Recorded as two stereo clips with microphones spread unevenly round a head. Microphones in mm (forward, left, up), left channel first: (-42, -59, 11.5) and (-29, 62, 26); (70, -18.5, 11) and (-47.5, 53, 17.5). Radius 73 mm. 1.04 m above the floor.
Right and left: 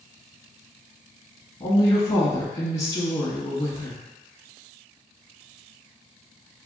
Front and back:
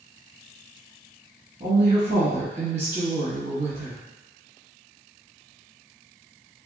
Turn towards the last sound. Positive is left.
turn(degrees=-145)